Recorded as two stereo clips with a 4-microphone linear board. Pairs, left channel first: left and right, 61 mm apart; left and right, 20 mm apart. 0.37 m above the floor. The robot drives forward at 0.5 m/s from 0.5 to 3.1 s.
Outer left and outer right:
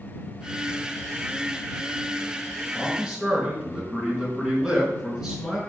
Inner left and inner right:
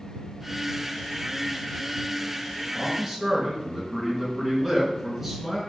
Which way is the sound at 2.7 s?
10° right (ahead or behind).